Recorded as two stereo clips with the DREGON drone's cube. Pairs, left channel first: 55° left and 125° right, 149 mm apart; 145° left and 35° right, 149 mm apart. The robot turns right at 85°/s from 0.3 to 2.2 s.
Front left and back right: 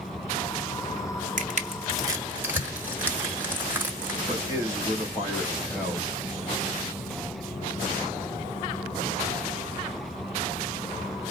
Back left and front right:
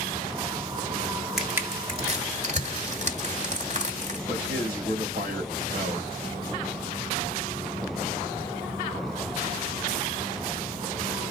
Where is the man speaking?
5° right, 3.5 m.